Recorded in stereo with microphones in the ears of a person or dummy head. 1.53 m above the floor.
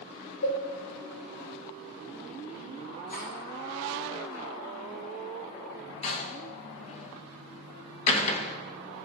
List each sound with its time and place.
0.4 s a cowbell: 85° left, 5 m
3.1 s cutlery clinking: 50° left (ahead or behind), 6 m
6.0 s a door slam: 35° left (ahead or behind), 1.2 m